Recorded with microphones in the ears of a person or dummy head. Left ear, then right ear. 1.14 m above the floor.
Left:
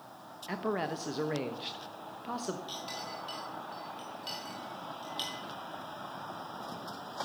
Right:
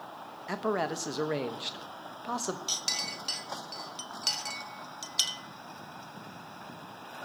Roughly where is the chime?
No chime in this recording.